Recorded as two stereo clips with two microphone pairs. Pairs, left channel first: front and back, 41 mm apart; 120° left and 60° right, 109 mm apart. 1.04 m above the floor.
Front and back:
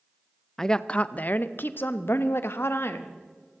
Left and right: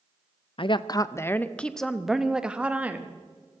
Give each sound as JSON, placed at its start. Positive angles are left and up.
{"t": 0.6, "sound": "a woman speaking", "azimuth_deg": 85, "distance_m": 0.6}